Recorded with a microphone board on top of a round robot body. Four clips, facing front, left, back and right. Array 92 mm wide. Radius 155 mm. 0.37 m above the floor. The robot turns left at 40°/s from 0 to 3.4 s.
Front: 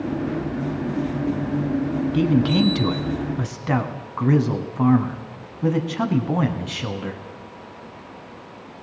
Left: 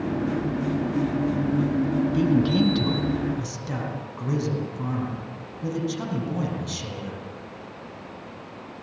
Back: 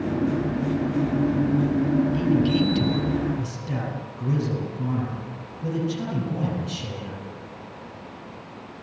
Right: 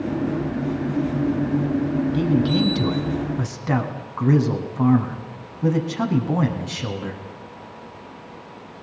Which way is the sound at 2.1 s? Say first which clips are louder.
Even, front 2 dB; 15° left.